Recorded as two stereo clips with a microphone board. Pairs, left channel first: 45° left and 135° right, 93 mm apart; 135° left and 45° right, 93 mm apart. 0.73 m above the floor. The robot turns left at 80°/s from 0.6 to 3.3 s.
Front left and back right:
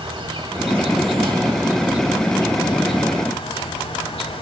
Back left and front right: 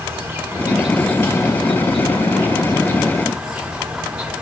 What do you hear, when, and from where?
0.0 s an insect: 110° right, 1.2 m; by 4.4 s 35° left, 1.2 m